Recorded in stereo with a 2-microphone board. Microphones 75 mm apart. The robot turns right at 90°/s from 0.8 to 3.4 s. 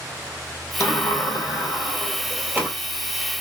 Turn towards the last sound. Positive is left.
turn(degrees=-75)